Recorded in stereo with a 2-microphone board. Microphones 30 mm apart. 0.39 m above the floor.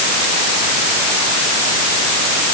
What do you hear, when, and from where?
Only background noise.